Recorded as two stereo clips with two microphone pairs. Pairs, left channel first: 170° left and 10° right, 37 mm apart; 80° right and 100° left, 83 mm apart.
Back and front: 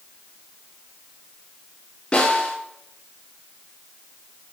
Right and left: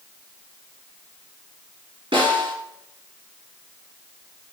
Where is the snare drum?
105° left, 4.5 m.